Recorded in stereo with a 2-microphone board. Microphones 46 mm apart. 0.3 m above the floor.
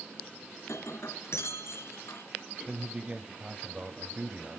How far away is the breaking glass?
About 3 m.